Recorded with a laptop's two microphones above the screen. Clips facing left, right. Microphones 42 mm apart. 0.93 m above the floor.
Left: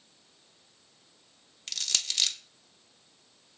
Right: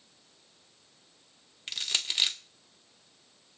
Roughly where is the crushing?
Centre.